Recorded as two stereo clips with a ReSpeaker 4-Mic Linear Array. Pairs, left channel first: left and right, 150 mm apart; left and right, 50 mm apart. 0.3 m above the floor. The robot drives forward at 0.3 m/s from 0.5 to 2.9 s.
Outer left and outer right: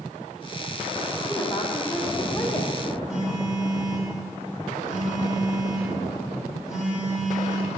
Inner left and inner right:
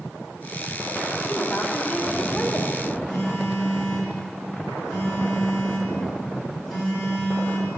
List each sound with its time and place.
1.3 s a woman speaking: 15° left (ahead or behind), 0.9 m
3.1 s a phone buzzing: 5° right (ahead or behind), 1.9 m